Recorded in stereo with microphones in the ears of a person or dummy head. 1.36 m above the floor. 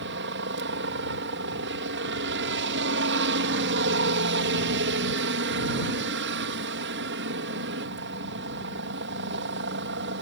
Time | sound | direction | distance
0.0 | a helicopter | 60° right (ahead or behind) | ?